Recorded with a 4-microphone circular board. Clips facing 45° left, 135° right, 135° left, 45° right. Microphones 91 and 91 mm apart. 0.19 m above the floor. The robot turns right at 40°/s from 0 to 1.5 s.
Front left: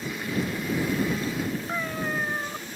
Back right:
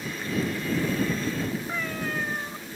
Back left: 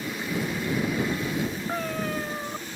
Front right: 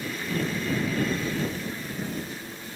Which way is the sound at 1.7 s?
120° left.